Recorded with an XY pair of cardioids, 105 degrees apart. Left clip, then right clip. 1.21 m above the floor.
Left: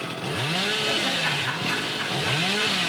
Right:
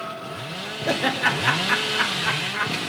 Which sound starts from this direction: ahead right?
Laughter, at 0.9 s.